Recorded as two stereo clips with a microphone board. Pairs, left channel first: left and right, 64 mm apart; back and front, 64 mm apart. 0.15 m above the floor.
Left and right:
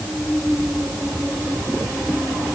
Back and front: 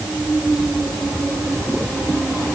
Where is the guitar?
No guitar in this recording.